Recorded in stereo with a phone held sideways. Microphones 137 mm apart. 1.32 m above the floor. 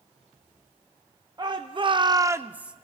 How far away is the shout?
About 0.7 m.